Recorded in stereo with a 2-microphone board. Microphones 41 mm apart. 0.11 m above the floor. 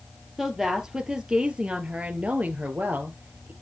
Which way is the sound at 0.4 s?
5° right (ahead or behind).